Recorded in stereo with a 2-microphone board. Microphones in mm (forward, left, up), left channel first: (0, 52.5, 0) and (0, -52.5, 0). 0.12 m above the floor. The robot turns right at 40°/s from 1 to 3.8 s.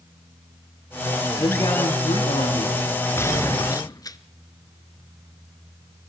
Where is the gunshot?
25° left (ahead or behind), 1.2 m; by 4.2 s 40° left (ahead or behind), 1.2 m.